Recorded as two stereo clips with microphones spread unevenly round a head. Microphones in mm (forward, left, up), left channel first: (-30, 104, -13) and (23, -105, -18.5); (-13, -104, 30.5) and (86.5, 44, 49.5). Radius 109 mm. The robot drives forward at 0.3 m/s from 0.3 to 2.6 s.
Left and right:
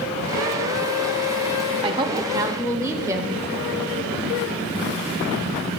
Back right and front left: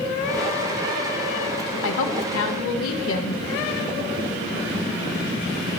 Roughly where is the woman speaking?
Behind right.